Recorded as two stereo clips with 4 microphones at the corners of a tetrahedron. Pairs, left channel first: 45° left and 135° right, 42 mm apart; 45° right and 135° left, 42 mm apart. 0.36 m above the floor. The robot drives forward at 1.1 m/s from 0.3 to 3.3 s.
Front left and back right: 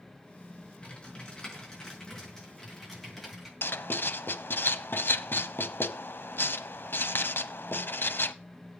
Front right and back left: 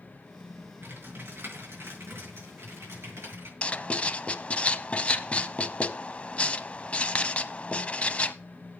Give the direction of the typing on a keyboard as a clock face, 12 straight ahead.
8 o'clock.